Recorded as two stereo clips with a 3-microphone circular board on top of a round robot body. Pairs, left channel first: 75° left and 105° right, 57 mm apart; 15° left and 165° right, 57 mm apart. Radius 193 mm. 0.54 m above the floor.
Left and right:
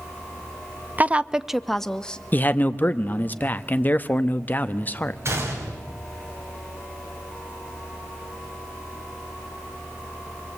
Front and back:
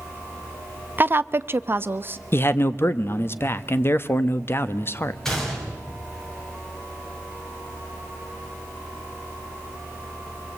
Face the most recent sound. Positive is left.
turn(degrees=-70)